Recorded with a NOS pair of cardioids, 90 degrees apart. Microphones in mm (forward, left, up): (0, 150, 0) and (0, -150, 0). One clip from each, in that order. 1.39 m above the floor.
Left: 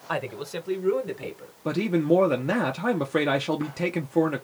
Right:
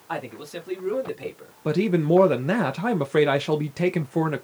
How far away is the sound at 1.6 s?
About 0.5 m.